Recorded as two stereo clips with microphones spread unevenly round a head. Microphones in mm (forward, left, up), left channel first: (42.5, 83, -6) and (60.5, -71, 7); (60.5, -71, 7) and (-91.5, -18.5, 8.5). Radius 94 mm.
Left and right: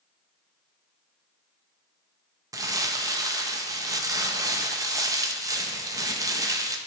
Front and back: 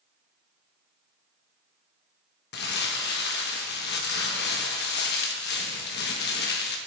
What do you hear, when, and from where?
2.5 s crumpling: 20° right, 1.0 m